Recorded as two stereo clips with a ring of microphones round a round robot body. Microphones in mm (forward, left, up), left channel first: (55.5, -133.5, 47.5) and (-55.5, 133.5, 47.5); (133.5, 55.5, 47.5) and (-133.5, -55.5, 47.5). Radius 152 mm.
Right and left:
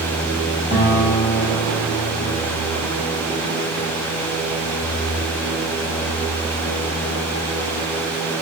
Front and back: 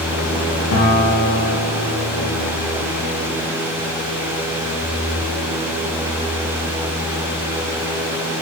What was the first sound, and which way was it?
A guitar, 5° right.